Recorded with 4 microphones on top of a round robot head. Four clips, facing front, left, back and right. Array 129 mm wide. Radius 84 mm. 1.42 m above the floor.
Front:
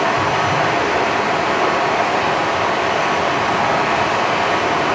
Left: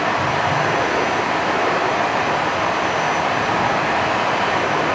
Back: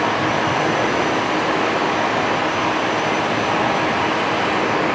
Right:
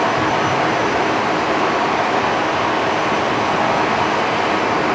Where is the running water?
45° right, 1.9 m.